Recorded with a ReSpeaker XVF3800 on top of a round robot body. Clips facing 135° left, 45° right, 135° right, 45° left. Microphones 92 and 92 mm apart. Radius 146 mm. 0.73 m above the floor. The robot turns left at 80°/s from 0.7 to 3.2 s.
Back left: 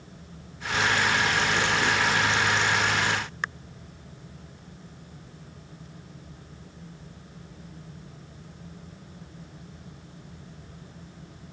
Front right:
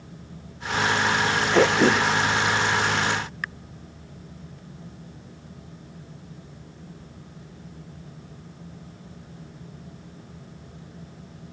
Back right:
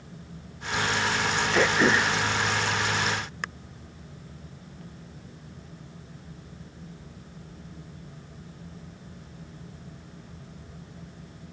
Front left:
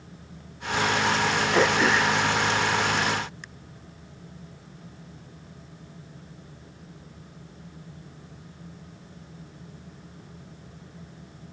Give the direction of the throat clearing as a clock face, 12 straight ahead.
1 o'clock.